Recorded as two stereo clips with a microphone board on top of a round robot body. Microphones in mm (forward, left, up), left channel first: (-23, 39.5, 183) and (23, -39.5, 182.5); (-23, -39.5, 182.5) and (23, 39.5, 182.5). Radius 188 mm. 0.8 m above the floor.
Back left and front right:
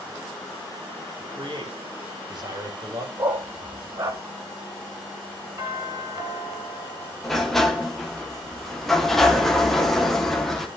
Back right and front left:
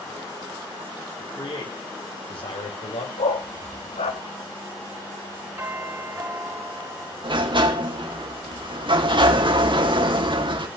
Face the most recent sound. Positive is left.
turn(degrees=35)